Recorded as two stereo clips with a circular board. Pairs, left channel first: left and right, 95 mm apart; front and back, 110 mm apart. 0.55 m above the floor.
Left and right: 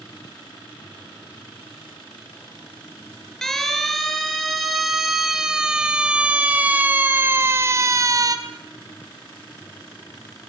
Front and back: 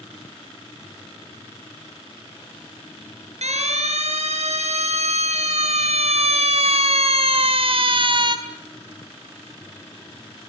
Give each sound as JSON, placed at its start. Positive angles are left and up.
{"t": 3.4, "sound": "a siren", "azimuth_deg": 175, "distance_m": 7.5}